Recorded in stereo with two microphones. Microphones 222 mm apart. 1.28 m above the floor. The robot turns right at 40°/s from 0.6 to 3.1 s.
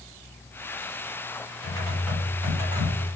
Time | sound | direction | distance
1.6 | typing on a keyboard | 155° left | 1.0 m